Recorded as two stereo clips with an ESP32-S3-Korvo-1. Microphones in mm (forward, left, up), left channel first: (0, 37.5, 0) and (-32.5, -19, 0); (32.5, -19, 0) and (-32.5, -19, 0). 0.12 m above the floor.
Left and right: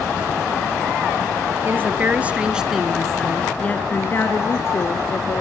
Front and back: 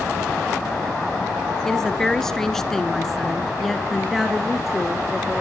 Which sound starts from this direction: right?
A woman speaking, at 1.6 s.